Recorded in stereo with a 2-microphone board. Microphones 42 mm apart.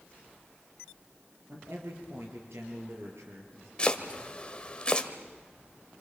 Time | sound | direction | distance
1.5 | a man speaking | 75° right (ahead or behind) | 5.5 m
3.8 | chopping | 25° left (ahead or behind) | 1.6 m